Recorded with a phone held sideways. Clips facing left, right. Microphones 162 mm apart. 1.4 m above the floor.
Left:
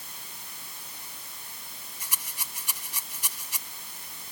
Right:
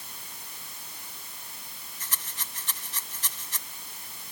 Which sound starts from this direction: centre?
A rattle, at 2.0 s.